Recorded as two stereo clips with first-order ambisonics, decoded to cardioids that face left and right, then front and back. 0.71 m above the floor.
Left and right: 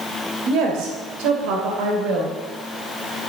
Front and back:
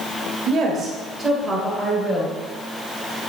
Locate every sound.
0.5 s a woman speaking: 125° right, 2.5 m; by 2.4 s 75° right, 3 m